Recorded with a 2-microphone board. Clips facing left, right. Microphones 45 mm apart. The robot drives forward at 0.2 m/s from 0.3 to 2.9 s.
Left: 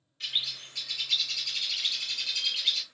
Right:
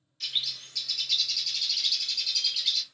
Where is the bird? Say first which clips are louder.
Even; 20° left (ahead or behind), 0.8 m; by 2.8 s 30° left (ahead or behind), 0.6 m.